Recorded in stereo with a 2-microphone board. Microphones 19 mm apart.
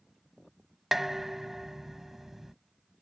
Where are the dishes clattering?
10° right (ahead or behind).